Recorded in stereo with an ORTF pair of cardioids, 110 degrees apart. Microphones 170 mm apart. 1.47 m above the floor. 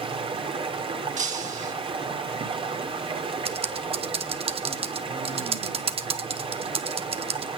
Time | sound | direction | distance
0.0 | running water | 30° right | 3 m
1.2 | breaking glass | 45° right | 5 m
3.5 | typing on a keyboard | 35° right | 1.7 m